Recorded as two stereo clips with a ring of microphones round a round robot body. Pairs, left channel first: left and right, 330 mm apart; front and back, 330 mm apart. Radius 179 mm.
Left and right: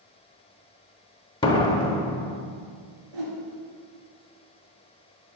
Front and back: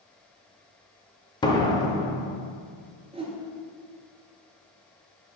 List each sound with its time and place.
1.4 s a door slam: 50° left, 0.9 m
3.1 s a whoosh: 105° right, 1.9 m